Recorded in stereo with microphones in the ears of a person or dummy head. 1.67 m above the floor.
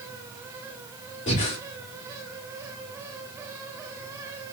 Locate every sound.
1.3 s breathing: 35° left (ahead or behind), 1.8 m